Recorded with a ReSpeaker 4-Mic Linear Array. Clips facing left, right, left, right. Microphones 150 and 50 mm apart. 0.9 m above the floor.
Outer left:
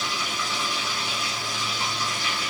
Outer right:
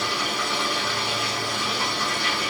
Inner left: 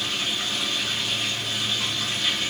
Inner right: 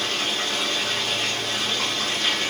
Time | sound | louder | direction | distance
0.0 | running water | outer right 4 dB, inner right 2 dB | 60° right (ahead or behind) | 2 m